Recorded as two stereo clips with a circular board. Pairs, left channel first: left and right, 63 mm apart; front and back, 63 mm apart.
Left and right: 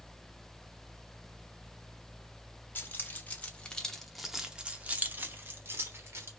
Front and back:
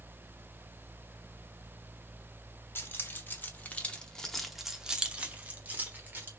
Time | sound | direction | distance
2.8 | keys jangling | 40° left | 1.1 m